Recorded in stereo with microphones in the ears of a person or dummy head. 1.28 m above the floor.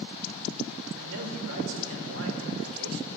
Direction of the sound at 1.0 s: 75° right (ahead or behind).